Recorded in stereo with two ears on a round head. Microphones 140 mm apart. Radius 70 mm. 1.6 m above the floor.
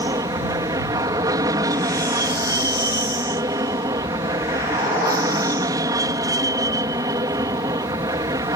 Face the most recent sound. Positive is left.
turn(degrees=-20)  # may be behind; listen again after turning